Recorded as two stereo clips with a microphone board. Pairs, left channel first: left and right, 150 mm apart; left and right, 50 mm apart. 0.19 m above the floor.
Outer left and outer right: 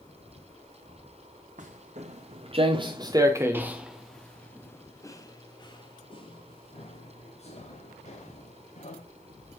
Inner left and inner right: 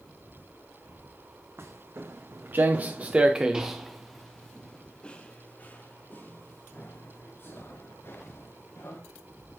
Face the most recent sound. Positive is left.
turn(degrees=55)  # may be behind; listen again after turning